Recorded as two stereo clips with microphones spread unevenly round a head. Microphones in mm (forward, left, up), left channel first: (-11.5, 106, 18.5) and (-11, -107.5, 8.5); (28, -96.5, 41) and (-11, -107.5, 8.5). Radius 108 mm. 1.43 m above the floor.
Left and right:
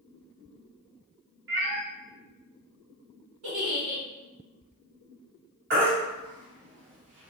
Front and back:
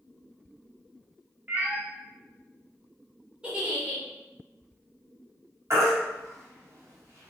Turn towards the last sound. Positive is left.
turn(degrees=-125)